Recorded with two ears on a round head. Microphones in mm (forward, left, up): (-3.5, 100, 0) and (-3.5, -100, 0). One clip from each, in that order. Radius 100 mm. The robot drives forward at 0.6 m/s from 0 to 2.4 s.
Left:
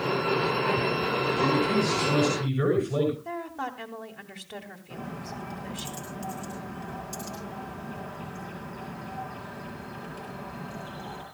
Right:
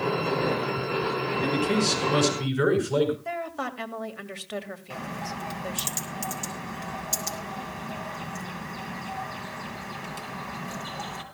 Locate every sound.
1.4 s a man speaking: 80° right, 7 m
3.2 s a woman speaking: 50° right (ahead or behind), 2 m
4.9 s a bird: 70° right (ahead or behind), 5.5 m